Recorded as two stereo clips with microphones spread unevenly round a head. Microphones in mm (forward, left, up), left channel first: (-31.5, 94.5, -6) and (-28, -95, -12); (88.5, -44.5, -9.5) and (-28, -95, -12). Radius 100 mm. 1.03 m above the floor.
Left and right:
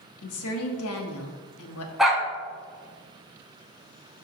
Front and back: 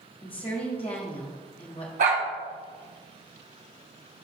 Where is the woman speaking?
90° left, 1.4 m.